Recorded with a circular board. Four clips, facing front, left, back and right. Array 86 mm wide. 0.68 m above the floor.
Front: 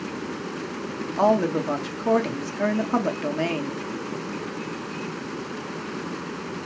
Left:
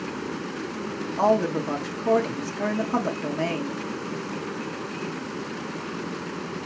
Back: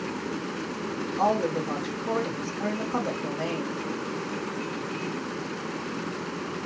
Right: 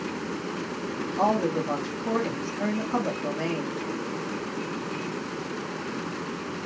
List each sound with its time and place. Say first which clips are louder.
1.2 s a woman speaking: left 3 dB, front 5 dB; 10° left, 1.0 m